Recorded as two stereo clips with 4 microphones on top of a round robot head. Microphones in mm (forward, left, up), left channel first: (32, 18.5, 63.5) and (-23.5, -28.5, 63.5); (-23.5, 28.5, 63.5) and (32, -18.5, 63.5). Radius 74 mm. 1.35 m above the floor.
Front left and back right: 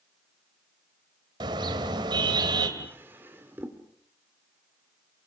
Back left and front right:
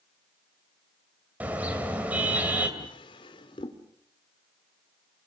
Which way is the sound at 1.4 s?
110° right.